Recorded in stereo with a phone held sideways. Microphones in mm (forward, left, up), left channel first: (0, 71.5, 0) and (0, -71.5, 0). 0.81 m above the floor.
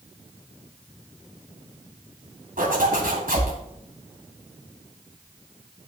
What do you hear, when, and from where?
2.6 s a zipper: 80° right, 2.5 m